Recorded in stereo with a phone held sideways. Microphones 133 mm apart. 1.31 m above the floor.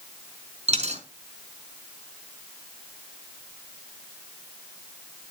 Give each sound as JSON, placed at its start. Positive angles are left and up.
{"t": 0.7, "sound": "a dropped coin", "side_deg": -50, "distance_m": 3.5}